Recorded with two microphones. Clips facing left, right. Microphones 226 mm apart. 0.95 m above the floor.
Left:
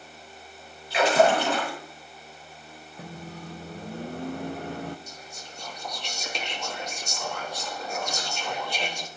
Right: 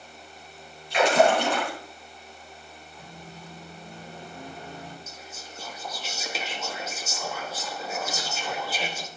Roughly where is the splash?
Centre.